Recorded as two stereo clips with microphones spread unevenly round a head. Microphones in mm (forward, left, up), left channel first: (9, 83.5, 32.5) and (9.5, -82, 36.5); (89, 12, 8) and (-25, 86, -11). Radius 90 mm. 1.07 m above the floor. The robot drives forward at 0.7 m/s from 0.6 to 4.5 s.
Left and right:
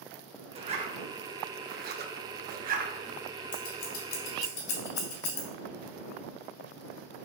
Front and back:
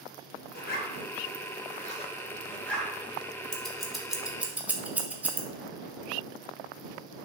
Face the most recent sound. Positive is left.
turn(degrees=65)